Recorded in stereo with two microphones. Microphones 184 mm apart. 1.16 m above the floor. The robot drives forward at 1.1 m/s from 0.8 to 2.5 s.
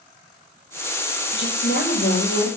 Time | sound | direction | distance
1.3 | a woman speaking | 85° left | 6 m